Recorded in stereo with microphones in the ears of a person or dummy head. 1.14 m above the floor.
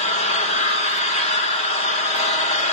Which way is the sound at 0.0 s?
35° left (ahead or behind).